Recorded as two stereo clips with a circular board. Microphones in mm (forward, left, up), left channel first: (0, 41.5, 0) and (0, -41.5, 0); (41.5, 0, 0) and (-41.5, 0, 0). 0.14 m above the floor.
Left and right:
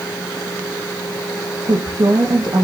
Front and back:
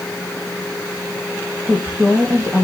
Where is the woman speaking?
110° right, 4 m.